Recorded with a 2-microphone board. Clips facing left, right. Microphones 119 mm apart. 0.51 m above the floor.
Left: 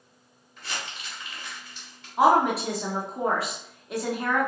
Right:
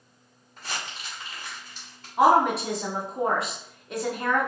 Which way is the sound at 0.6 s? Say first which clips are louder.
Right 1 dB; 40° right (ahead or behind).